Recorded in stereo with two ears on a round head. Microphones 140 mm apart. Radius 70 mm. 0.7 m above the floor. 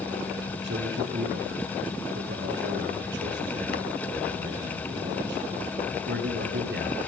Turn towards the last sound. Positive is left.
turn(degrees=-85)